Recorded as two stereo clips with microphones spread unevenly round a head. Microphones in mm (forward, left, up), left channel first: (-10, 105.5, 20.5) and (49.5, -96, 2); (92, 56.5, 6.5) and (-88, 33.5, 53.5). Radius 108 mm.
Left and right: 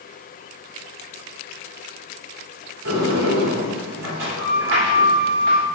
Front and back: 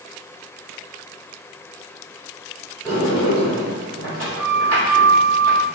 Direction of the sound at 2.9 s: 85° right.